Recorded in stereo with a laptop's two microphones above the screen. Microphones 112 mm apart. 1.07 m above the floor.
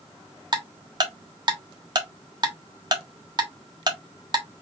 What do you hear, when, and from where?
0.5 s ticking: 40° right (ahead or behind), 1.4 m